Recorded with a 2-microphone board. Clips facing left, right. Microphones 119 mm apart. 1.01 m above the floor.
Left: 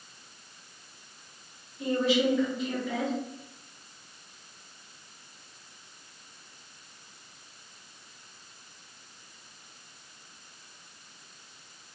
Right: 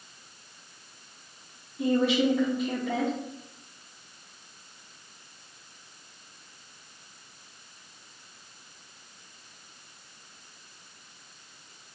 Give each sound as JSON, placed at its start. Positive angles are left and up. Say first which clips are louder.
{"t": 1.8, "sound": "a woman speaking", "louder": "right 2 dB", "side_deg": -60, "distance_m": 1.7}